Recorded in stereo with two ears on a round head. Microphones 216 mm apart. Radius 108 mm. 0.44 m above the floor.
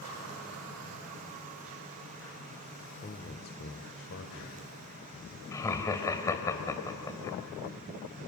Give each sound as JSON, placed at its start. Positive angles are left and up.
{"t": 3.0, "sound": "a man speaking", "side_deg": 30, "distance_m": 1.3}
{"t": 5.5, "sound": "laughter", "side_deg": 15, "distance_m": 2.0}